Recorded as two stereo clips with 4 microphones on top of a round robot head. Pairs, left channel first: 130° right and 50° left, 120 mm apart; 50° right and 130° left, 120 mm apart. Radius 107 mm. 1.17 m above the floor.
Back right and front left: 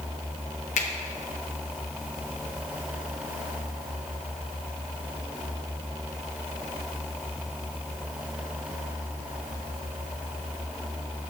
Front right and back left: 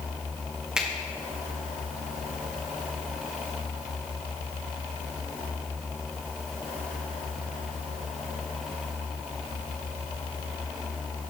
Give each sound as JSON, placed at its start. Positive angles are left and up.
{"t": 0.8, "sound": "a finger snap", "azimuth_deg": -145, "distance_m": 1.7}